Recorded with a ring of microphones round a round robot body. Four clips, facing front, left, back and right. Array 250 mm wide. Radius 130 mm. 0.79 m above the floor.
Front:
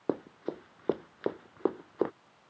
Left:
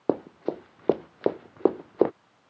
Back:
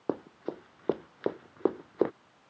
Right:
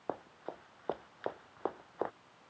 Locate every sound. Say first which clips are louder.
0.1 s running footsteps: left 15 dB, front 1 dB; 85° left; by 2.1 s 95° left